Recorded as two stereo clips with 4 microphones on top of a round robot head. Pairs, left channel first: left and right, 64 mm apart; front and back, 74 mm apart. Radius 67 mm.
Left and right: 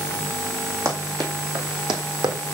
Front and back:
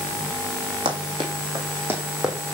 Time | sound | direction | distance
0.8 | running footsteps | 150° right | 2.5 m